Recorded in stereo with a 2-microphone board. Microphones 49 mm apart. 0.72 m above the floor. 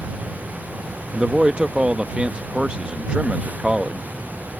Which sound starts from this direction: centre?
A man speaking, at 1.1 s.